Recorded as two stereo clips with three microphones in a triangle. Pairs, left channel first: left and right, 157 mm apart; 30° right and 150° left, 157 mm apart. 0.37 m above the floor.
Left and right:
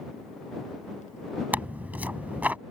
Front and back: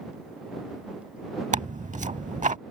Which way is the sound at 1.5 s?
170° right.